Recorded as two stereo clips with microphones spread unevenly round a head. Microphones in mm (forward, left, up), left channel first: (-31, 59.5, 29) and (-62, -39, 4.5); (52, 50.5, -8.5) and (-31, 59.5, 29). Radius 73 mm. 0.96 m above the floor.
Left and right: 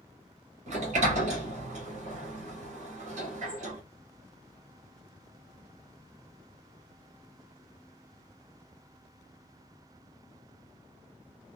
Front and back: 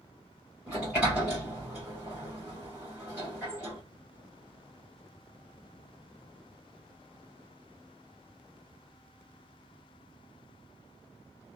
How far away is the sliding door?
About 1.4 m.